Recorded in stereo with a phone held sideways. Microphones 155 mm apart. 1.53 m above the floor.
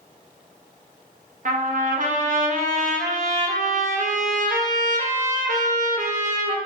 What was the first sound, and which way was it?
A trumpet, 55° right (ahead or behind).